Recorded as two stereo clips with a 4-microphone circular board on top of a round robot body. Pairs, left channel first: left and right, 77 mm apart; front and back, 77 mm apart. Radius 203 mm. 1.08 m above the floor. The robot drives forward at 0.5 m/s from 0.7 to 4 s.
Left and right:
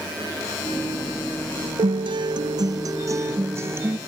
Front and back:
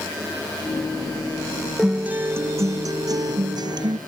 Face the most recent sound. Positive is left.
turn(degrees=-150)